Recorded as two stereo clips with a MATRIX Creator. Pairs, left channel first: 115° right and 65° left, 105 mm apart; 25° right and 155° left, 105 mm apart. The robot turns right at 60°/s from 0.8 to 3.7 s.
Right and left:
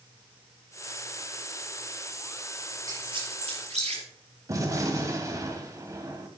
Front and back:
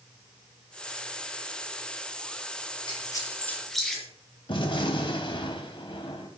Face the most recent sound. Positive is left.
turn(degrees=10)